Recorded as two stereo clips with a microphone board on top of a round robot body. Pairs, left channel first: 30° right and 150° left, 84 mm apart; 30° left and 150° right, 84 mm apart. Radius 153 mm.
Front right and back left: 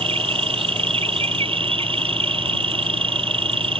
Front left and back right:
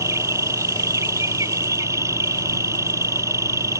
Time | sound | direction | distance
0.0 | an insect | 150° left | ?